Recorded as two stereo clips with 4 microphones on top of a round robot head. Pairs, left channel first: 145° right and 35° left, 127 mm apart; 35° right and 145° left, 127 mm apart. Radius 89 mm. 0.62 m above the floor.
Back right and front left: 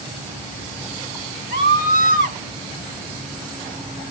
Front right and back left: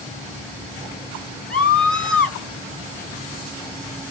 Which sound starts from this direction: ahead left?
A scream, at 1.5 s.